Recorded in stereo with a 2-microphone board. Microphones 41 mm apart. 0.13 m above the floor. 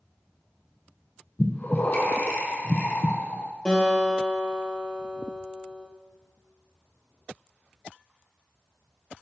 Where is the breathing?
55° left (ahead or behind), 0.9 m.